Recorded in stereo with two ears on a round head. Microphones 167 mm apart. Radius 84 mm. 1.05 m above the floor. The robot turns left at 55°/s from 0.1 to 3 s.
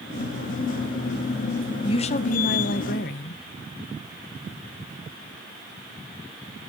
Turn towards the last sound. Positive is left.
turn(degrees=80)